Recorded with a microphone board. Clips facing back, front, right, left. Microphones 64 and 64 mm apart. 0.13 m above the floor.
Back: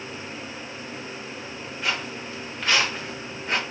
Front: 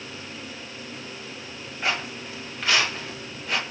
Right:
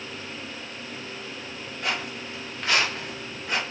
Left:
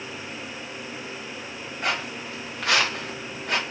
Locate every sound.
1.8 s footsteps: 60° left, 2.0 m; by 3.6 s 125° left, 1.6 m